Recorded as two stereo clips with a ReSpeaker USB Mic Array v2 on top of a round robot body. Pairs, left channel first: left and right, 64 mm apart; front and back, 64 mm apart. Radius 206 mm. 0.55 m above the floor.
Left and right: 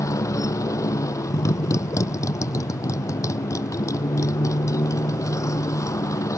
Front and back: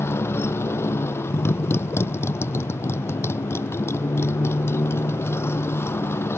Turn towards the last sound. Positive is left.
turn(degrees=50)